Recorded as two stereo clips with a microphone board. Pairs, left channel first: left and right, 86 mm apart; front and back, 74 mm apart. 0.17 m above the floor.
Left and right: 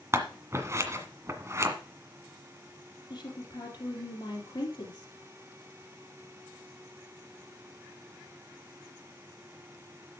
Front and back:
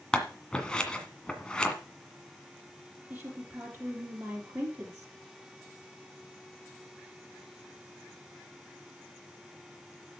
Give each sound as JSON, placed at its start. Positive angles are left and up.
{"t": 0.1, "sound": "scissors", "azimuth_deg": -70, "distance_m": 1.7}
{"t": 3.1, "sound": "a woman speaking", "azimuth_deg": 125, "distance_m": 3.0}